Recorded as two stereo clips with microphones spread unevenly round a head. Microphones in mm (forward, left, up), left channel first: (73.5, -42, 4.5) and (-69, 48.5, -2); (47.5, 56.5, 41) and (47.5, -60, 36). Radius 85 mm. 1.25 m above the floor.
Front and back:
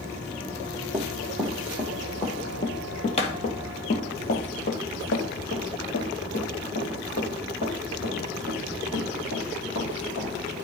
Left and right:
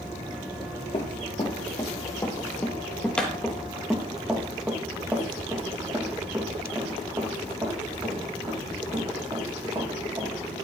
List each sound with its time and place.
0.9 s running footsteps: 65° left, 1.7 m; by 10.7 s 30° right, 5 m